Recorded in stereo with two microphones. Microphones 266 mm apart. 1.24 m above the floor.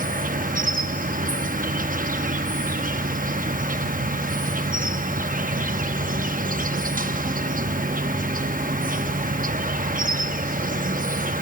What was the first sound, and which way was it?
An insect, 30° right (ahead or behind).